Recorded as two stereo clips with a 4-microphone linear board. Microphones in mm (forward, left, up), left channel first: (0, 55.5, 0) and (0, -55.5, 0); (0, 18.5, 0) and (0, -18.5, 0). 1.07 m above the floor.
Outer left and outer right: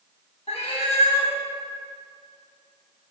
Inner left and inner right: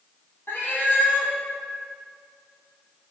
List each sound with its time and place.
0.5 s a cat meowing: 75° left (ahead or behind), 3 m